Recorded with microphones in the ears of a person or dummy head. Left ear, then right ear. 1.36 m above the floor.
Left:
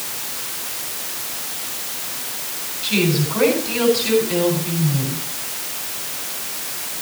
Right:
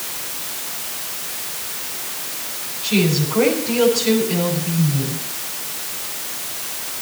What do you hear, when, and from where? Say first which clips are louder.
2.8 s a woman speaking: even; 20° left (ahead or behind), 8.5 m